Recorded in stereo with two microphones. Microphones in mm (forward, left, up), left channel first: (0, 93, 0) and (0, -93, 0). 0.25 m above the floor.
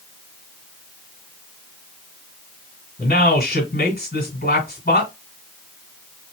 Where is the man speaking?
55° left (ahead or behind), 2 m.